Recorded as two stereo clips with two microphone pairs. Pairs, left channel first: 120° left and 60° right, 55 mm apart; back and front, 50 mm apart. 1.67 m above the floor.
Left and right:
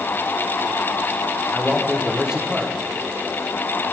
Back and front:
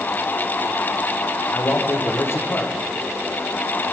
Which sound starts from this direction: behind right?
A man speaking, at 1.5 s.